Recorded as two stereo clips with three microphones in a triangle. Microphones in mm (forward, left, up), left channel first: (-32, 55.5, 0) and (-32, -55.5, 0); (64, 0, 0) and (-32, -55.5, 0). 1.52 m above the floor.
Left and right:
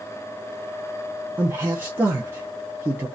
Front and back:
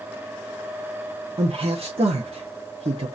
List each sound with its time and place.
1.4 s a man speaking: 160° right, 0.8 m